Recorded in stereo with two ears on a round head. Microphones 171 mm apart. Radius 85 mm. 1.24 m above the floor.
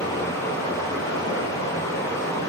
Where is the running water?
15° left (ahead or behind), 3.5 m.